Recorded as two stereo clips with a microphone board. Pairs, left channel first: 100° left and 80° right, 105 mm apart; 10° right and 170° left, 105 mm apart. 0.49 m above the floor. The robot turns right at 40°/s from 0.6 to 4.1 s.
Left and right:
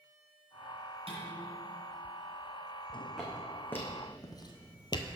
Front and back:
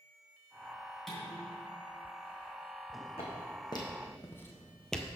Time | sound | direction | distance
1.1 | dishes clattering | 100° right | 2.5 m
3.2 | footsteps | 5° left | 2 m